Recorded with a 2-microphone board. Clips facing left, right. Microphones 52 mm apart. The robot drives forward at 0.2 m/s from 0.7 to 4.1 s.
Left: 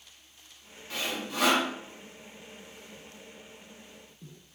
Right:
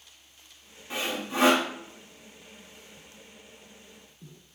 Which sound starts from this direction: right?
Sawing, at 0.9 s.